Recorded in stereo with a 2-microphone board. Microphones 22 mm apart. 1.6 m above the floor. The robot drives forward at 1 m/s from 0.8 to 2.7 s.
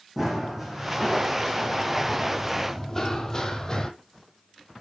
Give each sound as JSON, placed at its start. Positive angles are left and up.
{"t": 0.2, "sound": "running footsteps", "side_deg": -10, "distance_m": 4.0}